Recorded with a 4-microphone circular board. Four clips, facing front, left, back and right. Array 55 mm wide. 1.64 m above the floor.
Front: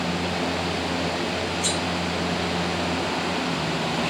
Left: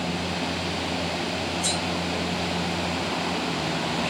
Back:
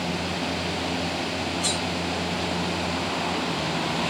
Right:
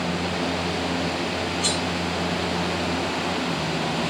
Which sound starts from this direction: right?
Cutlery clinking, at 1.6 s.